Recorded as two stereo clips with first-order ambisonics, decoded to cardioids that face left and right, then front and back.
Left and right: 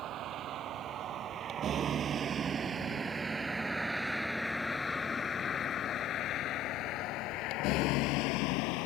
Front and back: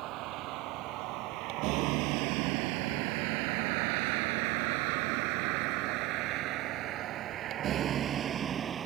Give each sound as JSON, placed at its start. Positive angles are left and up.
{"t": 0.0, "sound": "a vehicle", "azimuth_deg": -140}